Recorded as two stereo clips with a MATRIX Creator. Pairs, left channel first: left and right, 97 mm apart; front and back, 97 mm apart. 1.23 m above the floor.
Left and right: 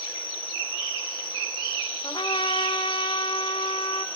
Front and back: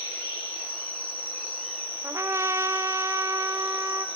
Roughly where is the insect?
Left.